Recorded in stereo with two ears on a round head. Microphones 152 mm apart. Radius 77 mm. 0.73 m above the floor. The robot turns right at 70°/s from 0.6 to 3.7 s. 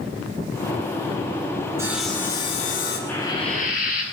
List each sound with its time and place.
1.8 s sawing: 15° right, 8 m; by 3.0 s 65° left, 8 m
3.1 s frying: 10° left, 9.5 m; by 4.0 s 50° left, 9.5 m